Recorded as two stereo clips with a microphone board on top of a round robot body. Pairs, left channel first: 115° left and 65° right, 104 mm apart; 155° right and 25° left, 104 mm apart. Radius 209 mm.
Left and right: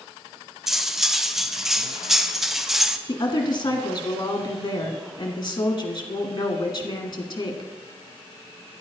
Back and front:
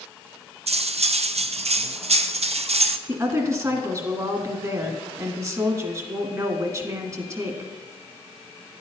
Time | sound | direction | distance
0.7 | cutlery clinking | 20° left | 0.7 m
3.1 | a woman speaking | 65° left | 1.8 m